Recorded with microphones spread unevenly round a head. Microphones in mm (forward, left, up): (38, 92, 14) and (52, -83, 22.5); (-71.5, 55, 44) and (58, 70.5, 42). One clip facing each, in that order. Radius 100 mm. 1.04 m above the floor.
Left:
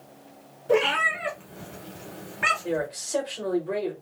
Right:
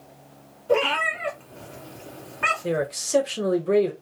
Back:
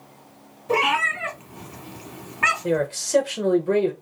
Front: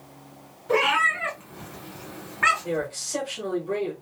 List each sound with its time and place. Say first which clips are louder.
0.7 s a cat meowing: even, back 1 dB; 155° left, 1.0 m
2.6 s a man speaking: right 3 dB, back 5 dB; 130° right, 0.7 m